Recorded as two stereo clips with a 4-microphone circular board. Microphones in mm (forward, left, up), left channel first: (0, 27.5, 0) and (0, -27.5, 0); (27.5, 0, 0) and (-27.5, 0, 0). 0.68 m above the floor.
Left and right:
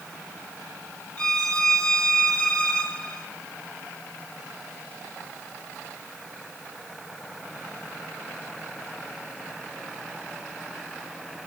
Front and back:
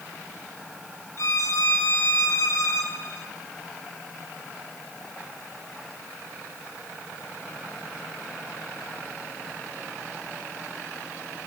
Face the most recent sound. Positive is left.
turn(degrees=20)